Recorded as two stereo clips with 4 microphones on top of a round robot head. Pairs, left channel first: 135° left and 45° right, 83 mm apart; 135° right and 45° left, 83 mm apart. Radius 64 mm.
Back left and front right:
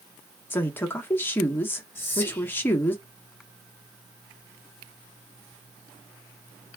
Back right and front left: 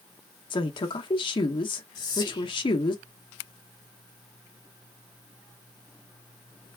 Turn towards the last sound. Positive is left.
turn(degrees=-160)